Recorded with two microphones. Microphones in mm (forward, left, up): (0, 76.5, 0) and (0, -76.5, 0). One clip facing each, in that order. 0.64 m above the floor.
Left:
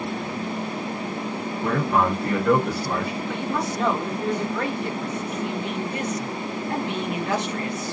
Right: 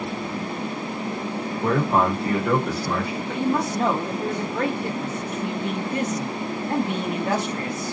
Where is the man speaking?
40° right (ahead or behind), 1.6 m; by 3.2 s 30° left (ahead or behind), 1.4 m.